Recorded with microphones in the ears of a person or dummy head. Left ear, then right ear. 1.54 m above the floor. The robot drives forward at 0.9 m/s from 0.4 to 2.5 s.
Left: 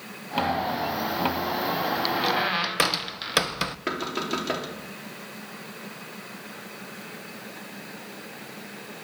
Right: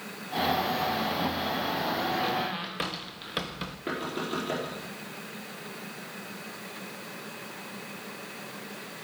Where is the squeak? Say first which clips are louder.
Left 5 dB; 30° left (ahead or behind), 0.9 m; by 3.8 s 35° left (ahead or behind), 0.7 m.